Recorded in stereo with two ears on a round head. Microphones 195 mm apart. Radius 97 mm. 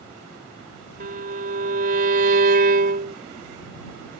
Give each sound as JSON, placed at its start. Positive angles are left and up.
{"t": 1.0, "sound": "a violin", "side_deg": -45}